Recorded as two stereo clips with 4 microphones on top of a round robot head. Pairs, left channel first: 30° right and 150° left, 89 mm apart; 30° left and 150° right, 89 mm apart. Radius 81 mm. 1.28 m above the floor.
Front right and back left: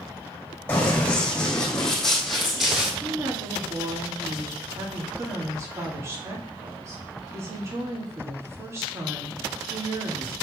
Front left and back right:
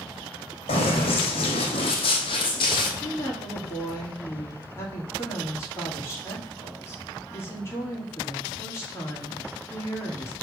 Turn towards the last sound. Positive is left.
turn(degrees=90)